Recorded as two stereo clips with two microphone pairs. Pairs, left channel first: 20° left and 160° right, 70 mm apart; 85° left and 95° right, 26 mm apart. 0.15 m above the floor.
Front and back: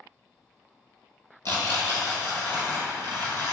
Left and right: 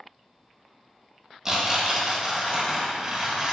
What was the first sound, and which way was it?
Tearing paper, 20° right.